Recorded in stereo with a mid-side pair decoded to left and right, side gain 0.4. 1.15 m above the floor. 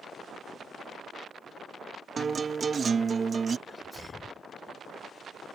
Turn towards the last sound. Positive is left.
turn(degrees=30)